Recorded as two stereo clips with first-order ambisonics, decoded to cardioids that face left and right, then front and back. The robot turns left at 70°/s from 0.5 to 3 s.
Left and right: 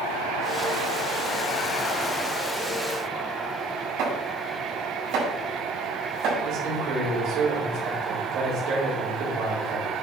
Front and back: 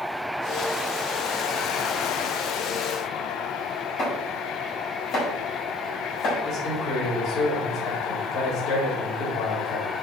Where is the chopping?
60° right, 5.5 m.